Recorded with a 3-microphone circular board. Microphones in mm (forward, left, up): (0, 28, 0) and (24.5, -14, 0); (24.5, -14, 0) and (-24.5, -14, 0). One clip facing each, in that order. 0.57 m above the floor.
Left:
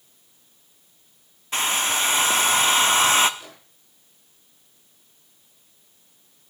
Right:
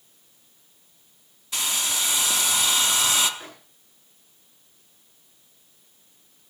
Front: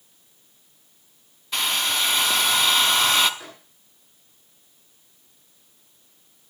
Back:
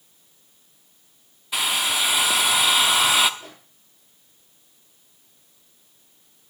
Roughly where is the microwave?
Ahead.